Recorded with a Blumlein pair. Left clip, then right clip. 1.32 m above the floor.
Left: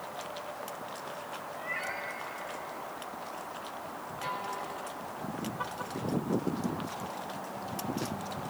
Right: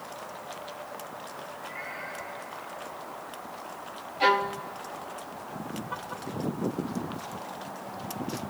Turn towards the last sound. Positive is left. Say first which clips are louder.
# right 13 dB
turn(degrees=-50)